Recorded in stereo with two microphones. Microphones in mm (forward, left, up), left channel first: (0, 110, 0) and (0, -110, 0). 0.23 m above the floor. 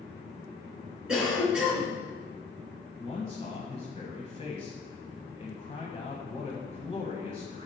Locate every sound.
1.1 s a cough: 5° right (ahead or behind), 3.5 m
3.0 s a man speaking: 30° left (ahead or behind), 1.1 m